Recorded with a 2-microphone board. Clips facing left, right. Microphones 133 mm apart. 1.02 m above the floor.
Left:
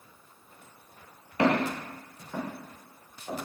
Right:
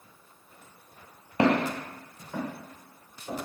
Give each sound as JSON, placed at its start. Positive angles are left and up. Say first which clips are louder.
{"t": 1.4, "sound": "footsteps", "louder": "right 1 dB", "side_deg": -30, "distance_m": 1.1}